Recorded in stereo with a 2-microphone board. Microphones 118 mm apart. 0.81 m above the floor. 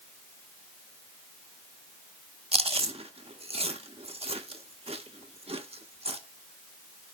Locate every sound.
2.5 s chewing: 55° right (ahead or behind), 0.6 m